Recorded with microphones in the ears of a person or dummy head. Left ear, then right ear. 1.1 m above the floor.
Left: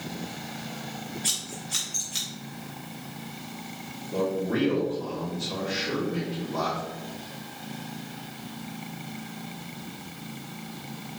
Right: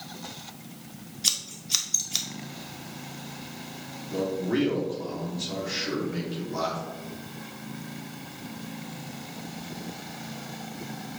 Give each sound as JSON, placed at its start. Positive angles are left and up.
{"t": 1.2, "sound": "scissors", "side_deg": -50, "distance_m": 1.3}
{"t": 4.1, "sound": "a man speaking", "side_deg": -65, "distance_m": 3.0}